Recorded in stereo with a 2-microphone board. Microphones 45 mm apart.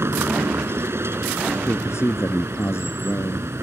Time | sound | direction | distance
0.0 | a vehicle | 70° right (ahead or behind) | ?
1.7 | a man speaking | 75° left (ahead or behind) | ?